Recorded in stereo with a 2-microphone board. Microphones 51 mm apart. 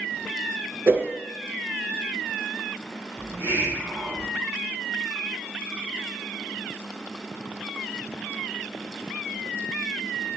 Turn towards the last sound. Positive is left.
turn(degrees=-55)  # may be behind; listen again after turning